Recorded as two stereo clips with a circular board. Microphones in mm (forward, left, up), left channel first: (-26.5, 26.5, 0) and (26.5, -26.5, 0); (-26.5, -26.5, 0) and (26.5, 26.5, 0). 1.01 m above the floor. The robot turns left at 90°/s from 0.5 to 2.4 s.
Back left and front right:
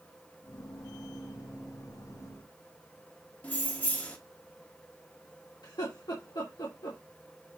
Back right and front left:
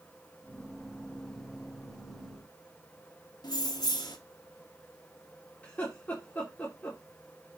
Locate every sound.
3.4 s keys jangling: 155° right, 1.2 m
5.6 s laughter: 160° left, 2.5 m